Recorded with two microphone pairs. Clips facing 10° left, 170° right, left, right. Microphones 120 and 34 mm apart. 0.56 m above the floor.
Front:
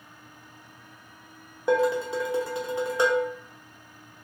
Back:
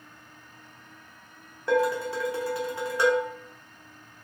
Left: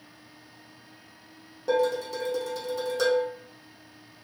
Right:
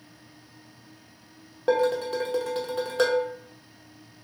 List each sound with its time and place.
1.7 s dishes clattering: 55° right, 0.6 m